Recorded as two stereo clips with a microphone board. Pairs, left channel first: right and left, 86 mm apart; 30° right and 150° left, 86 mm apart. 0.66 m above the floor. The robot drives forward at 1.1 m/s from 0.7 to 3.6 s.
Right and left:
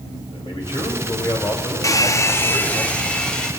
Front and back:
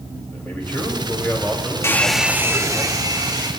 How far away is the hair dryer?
About 0.6 m.